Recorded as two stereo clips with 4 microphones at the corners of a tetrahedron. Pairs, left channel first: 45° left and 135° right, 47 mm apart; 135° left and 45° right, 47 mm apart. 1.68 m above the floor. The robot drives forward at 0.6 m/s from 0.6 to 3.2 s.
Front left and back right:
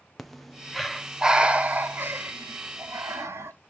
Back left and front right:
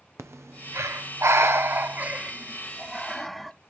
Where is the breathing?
40° right, 1.1 m; by 3.5 s 140° right, 1.0 m.